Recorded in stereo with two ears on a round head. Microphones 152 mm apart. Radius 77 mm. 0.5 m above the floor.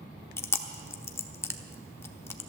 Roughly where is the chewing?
Centre.